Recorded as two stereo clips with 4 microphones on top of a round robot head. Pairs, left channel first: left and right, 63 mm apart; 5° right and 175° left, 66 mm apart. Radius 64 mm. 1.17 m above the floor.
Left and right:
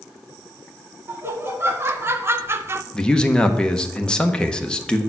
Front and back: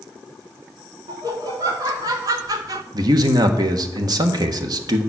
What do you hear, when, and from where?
1.1 s laughter: 145° right, 2.5 m
2.9 s a man speaking: 165° left, 1.2 m